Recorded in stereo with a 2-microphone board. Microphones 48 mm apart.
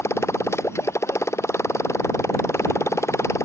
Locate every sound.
0.0 s a motorcycle: 70° left (ahead or behind); by 3.5 s 75° left (ahead or behind)